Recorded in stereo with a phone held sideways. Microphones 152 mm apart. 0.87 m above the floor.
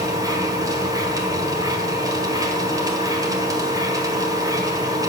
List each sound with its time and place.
0.0 s a machine running: 20° right (ahead or behind), 1.7 m